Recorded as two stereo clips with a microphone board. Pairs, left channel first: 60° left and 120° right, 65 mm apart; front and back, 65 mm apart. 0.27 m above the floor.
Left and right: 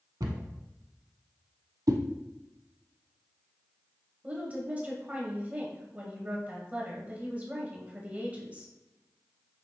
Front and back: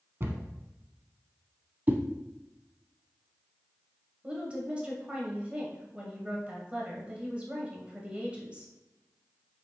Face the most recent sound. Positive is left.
turn(degrees=-140)